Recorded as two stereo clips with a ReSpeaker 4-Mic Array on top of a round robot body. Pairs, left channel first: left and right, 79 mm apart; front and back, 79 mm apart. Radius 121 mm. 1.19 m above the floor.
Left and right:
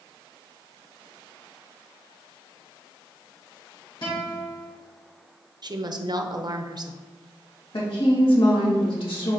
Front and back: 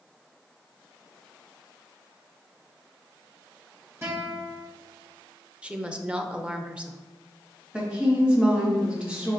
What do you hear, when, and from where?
4.0 s a guitar: 115° left, 2.5 m
5.6 s a woman speaking: 105° right, 0.8 m
7.7 s a woman speaking: 105° left, 2 m